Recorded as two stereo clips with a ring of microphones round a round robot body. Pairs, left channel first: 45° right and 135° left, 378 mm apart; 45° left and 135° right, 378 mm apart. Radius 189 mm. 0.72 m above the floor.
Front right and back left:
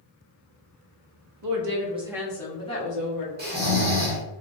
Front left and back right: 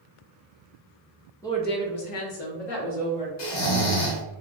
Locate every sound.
1.4 s a woman speaking: 125° left, 0.8 m; by 3.3 s 20° left, 2.0 m
3.4 s snoring: 70° left, 1.2 m